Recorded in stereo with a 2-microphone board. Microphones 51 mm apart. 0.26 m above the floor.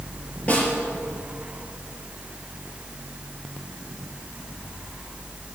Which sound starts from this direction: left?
A snare drum, at 0.5 s.